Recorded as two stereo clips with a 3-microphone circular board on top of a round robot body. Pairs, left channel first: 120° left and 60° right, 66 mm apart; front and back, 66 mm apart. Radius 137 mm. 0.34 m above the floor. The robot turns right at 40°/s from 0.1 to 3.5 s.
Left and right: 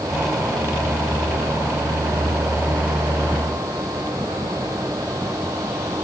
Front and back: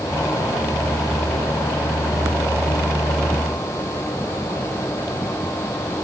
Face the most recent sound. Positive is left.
No sound to turn to.